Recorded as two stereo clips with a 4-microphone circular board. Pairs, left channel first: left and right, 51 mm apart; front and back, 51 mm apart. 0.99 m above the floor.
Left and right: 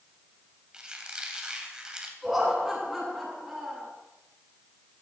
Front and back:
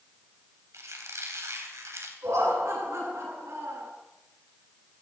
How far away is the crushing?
No crushing in this recording.